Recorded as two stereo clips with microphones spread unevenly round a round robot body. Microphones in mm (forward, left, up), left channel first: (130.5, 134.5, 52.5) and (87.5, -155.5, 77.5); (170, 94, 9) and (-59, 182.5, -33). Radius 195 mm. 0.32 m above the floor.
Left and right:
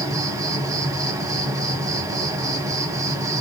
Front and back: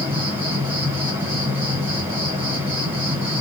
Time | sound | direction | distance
0.0 | an insect | 170° right | 1.2 m